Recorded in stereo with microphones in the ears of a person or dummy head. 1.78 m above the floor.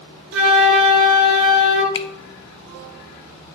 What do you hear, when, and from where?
0.3 s a flute: 60° right (ahead or behind), 1.7 m
1.9 s a finger snap: 25° left (ahead or behind), 0.8 m